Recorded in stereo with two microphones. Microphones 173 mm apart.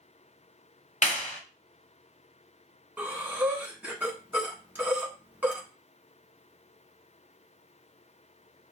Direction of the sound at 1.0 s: 45° left (ahead or behind).